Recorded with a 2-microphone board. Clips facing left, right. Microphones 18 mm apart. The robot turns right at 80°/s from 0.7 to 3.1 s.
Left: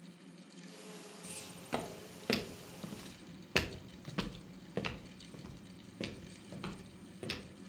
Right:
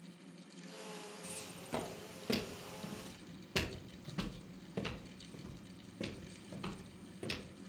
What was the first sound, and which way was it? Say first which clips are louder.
Footsteps: even; 5° right (ahead or behind).